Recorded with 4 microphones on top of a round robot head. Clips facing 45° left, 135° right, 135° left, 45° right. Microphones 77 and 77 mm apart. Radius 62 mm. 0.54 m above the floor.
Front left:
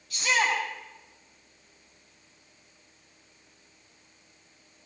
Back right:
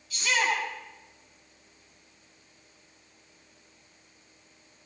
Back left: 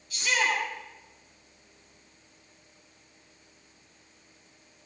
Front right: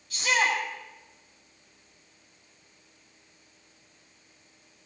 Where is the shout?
5° left, 4.5 m.